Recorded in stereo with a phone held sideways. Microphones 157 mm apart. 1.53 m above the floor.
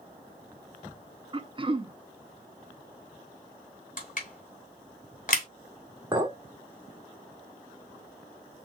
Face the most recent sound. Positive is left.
turn(degrees=-25)  # may be behind; listen again after turning